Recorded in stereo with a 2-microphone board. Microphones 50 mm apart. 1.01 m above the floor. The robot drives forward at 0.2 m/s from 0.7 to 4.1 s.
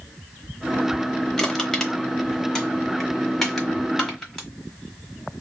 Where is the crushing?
10° left (ahead or behind), 0.9 m; by 4.5 s 5° left (ahead or behind), 1.3 m.